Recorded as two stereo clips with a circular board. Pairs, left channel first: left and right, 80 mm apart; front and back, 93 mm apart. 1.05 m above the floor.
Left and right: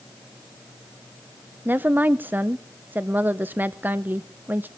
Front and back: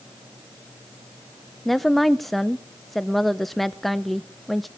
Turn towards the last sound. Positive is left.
turn(degrees=-85)